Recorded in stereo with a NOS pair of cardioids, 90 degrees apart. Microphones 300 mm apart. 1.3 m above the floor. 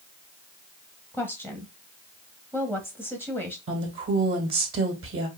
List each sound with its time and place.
1.1 s a woman speaking: 5° right, 1.0 m
3.7 s a woman speaking: 45° right, 2 m